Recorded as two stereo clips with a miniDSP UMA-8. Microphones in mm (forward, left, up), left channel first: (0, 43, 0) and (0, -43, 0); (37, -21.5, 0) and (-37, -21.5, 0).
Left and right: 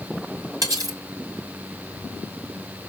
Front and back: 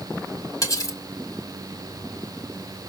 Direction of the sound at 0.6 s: 40° right.